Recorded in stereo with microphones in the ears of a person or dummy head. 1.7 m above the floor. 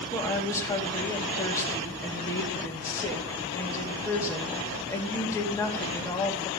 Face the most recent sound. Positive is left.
turn(degrees=15)  # may be behind; listen again after turning